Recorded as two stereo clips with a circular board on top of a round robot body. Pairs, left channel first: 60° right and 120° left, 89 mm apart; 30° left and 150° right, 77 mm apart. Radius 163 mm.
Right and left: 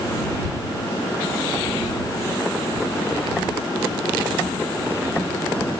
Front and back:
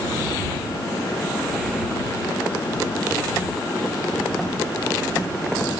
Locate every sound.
Only background noise.